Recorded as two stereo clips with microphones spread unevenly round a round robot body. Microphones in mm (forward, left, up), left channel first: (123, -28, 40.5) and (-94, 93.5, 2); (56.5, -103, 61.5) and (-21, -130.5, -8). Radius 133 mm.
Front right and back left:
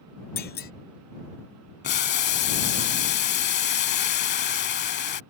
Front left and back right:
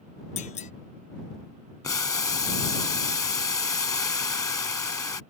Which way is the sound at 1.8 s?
15° left.